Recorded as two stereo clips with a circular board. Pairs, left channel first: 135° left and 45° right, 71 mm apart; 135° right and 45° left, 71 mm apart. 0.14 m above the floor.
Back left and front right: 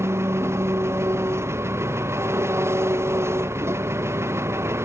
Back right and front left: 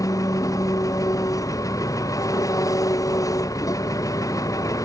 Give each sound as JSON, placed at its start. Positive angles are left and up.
{"t": 0.0, "sound": "an engine running", "azimuth_deg": -100}